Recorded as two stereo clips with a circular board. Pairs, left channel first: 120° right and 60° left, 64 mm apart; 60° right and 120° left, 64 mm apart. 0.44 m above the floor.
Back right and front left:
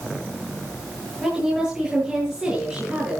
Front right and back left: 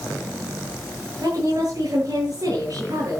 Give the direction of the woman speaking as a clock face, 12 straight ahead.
7 o'clock.